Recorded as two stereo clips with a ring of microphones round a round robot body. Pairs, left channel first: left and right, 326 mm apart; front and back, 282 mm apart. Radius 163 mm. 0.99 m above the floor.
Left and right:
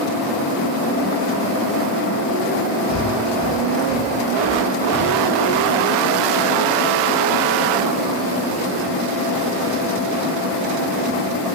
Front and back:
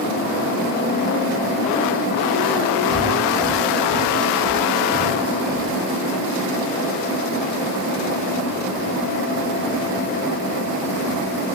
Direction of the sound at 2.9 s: 130° left.